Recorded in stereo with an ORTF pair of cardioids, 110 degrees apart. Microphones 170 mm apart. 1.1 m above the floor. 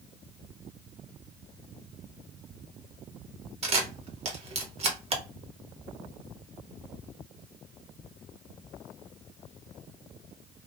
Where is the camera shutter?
40° right, 0.8 m.